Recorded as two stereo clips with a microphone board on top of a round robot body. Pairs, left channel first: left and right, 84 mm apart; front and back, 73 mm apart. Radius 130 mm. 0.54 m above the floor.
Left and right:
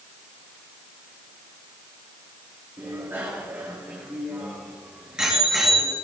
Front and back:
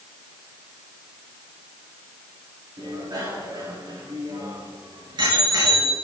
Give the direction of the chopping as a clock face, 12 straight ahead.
No chopping in this recording.